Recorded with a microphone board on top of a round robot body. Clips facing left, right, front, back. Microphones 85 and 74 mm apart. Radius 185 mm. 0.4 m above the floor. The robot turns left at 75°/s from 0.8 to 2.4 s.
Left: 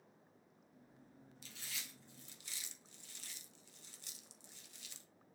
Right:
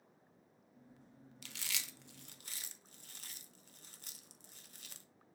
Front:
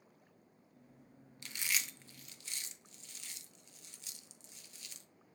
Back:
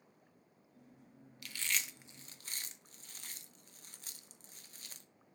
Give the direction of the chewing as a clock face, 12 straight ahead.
2 o'clock.